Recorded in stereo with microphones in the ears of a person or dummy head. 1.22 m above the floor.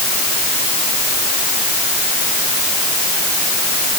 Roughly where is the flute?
I don't hear a flute.